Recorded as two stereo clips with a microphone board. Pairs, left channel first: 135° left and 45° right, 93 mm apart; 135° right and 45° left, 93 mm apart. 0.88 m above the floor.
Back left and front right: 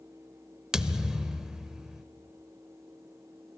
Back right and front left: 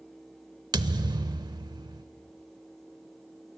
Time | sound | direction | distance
0.7 | a thud | 35° left | 0.8 m